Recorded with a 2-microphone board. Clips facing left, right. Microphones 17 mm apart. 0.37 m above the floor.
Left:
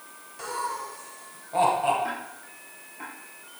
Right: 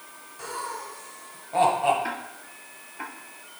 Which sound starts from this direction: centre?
Laughter, at 0.4 s.